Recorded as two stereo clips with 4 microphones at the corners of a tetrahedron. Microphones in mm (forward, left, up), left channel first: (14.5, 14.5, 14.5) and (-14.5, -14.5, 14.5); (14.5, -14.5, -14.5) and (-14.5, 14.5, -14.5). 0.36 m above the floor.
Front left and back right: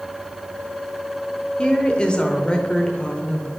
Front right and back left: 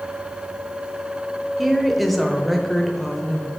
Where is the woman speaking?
45° left, 1.1 m.